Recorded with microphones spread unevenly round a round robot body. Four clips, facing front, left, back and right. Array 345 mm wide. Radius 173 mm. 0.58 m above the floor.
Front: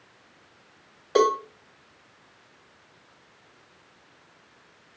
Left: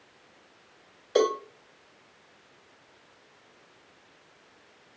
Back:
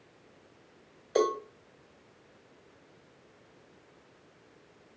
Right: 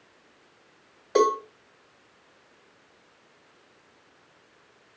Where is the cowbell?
40° right, 1.3 m.